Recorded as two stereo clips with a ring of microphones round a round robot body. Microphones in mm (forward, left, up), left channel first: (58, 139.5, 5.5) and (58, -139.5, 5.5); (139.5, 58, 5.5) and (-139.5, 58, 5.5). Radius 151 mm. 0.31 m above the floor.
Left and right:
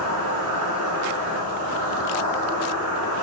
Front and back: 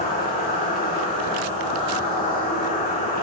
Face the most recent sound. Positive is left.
turn(degrees=-60)